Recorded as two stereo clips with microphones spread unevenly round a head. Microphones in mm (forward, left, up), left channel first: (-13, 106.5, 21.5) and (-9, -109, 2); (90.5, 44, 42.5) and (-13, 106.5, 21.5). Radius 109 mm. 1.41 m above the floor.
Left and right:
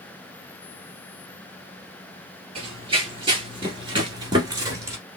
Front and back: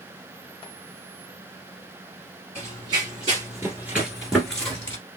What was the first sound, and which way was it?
Running footsteps, 150° right.